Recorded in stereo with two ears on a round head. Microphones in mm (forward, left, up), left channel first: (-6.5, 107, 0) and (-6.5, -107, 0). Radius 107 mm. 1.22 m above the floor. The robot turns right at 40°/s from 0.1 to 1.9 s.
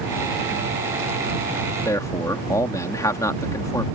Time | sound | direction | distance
1.9 | a man speaking | 10° left (ahead or behind) | ?